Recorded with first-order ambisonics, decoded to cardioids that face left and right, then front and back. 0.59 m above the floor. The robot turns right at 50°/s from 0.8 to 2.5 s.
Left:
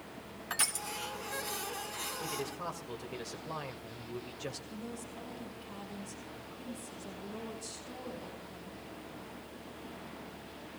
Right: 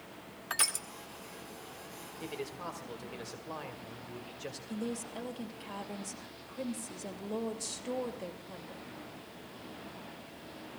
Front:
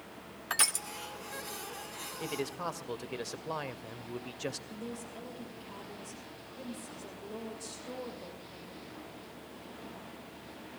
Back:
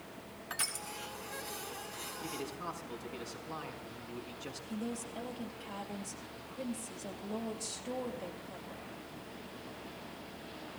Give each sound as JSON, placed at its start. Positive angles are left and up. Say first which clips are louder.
{"t": 0.5, "sound": "crushing", "louder": "right 1 dB, front 7 dB", "azimuth_deg": -15, "distance_m": 1.0}
{"t": 2.2, "sound": "a man speaking", "louder": "right 3 dB, front 6 dB", "azimuth_deg": -10, "distance_m": 1.9}
{"t": 4.7, "sound": "a woman speaking", "louder": "right 5 dB, back 2 dB", "azimuth_deg": -100, "distance_m": 2.5}